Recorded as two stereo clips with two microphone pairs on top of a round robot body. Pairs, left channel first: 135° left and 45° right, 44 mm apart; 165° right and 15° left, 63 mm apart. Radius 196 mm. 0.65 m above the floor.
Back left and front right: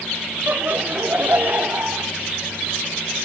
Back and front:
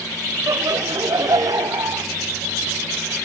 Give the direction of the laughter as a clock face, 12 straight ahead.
12 o'clock.